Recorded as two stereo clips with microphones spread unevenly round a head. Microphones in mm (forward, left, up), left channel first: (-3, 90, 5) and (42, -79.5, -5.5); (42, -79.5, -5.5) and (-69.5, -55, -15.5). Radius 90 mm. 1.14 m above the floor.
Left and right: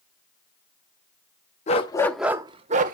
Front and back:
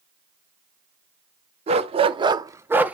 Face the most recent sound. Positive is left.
turn(degrees=-110)